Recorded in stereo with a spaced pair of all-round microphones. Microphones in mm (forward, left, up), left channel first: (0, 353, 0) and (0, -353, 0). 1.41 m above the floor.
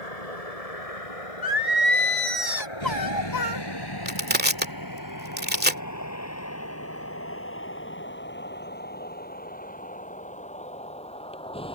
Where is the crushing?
15° right (ahead or behind).